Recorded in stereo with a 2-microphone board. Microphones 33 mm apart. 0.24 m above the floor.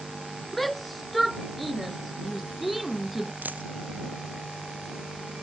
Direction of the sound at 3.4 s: 80° right.